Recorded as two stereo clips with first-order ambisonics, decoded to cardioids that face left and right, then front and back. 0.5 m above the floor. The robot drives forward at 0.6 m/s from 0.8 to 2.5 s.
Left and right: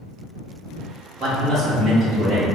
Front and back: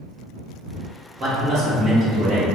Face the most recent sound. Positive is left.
turn(degrees=-170)